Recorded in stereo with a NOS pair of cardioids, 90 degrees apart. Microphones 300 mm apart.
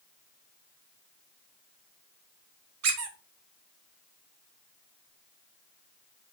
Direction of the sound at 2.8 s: 55° right.